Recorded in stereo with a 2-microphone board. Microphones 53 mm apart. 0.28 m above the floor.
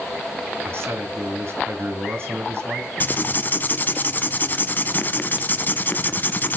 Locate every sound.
0.7 s a man speaking: 50° right (ahead or behind), 3 m
3.0 s writing: 40° left (ahead or behind), 0.9 m